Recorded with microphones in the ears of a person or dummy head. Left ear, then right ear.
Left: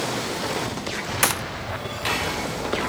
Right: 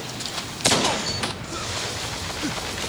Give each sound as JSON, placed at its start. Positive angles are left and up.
{"t": 1.2, "sound": "a gunshot", "side_deg": 35}